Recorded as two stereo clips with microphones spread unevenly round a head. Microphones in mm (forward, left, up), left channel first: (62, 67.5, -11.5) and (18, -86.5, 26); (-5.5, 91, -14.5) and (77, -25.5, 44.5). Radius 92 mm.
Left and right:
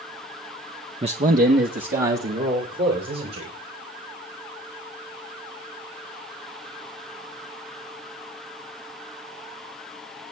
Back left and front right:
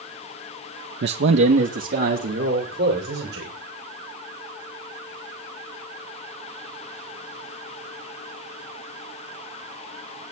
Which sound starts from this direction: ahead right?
A man speaking, at 1.0 s.